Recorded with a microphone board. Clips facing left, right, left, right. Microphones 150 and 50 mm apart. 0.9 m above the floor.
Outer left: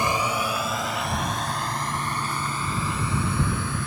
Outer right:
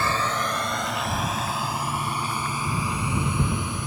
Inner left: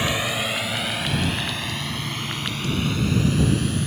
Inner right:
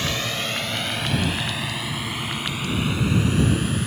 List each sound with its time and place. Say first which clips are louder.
0.0 s a drone: outer left 1 dB, inner left 2 dB; 15° left (ahead or behind); by 3.9 s 15° right (ahead or behind)